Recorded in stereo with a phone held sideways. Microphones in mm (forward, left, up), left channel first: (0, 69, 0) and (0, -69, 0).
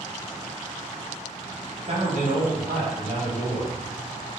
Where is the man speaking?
55° right (ahead or behind), 1.0 m; by 3.8 s 70° right (ahead or behind), 1.8 m.